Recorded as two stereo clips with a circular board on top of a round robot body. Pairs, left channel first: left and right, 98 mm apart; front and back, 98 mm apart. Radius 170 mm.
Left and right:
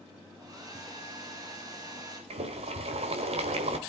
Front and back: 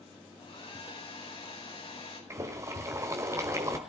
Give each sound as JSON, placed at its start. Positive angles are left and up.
{"t": 0.4, "sound": "a hair dryer", "azimuth_deg": -35, "distance_m": 4.5}
{"t": 2.3, "sound": "boiling", "azimuth_deg": -115, "distance_m": 1.3}